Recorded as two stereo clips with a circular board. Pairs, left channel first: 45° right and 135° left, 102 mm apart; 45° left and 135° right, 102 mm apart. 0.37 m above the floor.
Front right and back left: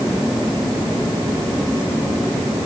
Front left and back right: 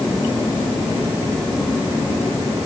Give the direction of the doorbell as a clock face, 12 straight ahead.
No doorbell in this recording.